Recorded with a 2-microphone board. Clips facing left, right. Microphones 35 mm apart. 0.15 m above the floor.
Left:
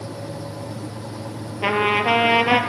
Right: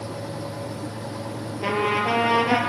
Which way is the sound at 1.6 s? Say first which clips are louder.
Left 4 dB; 45° left (ahead or behind).